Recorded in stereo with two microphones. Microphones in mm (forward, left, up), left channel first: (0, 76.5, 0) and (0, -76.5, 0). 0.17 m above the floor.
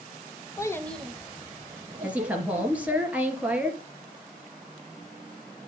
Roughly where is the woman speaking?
Centre.